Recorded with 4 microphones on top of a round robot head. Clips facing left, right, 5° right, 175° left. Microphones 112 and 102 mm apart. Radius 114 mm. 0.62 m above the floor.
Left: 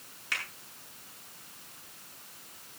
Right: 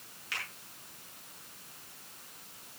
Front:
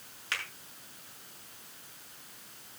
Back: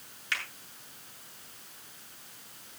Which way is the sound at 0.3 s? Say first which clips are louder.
Left 3 dB, back 2 dB; 45° left.